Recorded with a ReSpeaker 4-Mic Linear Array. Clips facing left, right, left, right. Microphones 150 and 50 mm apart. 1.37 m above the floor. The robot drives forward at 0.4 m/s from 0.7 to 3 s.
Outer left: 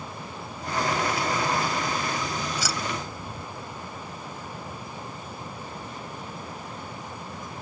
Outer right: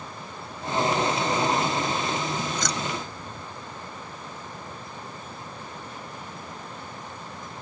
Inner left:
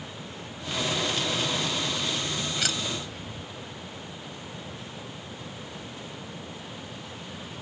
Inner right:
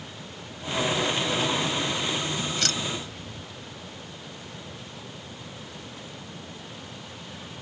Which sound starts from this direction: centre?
Keys jangling, at 2.5 s.